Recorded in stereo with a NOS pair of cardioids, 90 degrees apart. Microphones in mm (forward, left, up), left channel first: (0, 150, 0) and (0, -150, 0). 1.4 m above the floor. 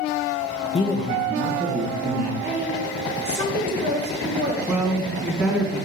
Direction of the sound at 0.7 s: 20° left.